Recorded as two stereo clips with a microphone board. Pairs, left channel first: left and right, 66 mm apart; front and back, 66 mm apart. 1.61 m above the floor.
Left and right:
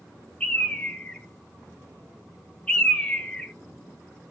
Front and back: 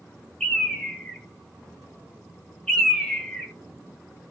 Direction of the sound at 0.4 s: 65° left.